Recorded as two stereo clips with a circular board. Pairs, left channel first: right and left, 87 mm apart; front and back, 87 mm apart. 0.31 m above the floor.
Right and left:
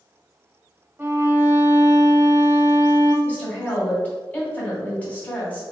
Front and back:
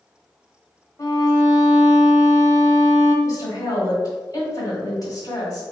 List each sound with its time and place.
1.0 s a violin: 30° left, 1.1 m
3.2 s a woman speaking: 25° right, 1.8 m